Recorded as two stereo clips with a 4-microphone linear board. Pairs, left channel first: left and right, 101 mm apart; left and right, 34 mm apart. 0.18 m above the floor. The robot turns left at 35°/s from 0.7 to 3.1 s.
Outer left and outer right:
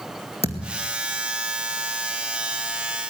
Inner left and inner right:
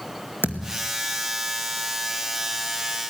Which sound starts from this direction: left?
A thud, at 0.4 s.